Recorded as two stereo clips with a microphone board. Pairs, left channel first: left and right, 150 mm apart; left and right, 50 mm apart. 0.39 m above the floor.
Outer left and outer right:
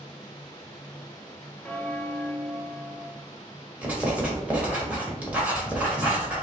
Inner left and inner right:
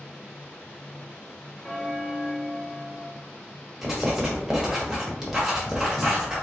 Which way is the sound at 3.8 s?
10° right (ahead or behind).